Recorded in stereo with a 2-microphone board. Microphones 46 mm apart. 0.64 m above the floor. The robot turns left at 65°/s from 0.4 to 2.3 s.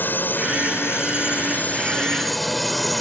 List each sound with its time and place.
0.0 s a drone: 125° left; by 3.0 s straight ahead